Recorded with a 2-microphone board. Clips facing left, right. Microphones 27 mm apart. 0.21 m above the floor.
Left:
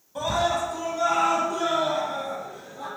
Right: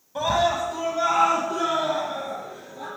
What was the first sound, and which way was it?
A scream, 25° right (ahead or behind).